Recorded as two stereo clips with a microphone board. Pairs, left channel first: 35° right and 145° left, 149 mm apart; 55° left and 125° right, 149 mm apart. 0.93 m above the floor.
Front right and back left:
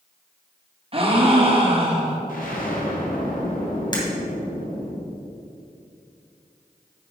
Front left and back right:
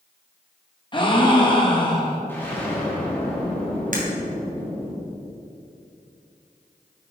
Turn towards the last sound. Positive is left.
turn(degrees=-95)